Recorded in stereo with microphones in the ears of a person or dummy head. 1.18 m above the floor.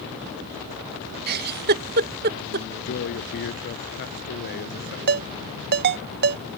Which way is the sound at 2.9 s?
50° left (ahead or behind).